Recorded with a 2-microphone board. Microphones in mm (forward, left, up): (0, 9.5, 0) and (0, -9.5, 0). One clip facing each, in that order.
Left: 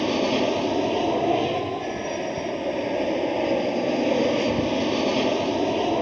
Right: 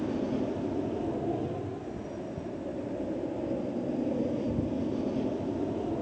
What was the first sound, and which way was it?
An aircraft, 70° left (ahead or behind).